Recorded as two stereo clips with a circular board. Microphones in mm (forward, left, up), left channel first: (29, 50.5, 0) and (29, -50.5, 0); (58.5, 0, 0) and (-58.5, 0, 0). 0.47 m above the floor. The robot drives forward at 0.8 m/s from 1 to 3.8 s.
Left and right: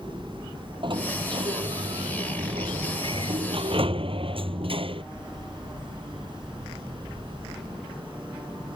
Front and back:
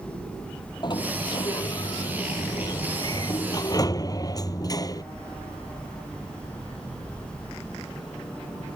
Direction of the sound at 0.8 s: 50° right.